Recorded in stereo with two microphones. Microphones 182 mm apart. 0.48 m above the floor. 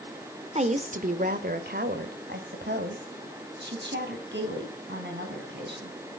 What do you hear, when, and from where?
0.6 s a woman speaking: 35° right (ahead or behind), 1.8 m; by 5.9 s 75° right (ahead or behind), 5.5 m